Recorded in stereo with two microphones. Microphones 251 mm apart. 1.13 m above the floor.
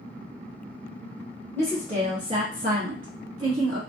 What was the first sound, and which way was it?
A woman speaking, 5° left (ahead or behind).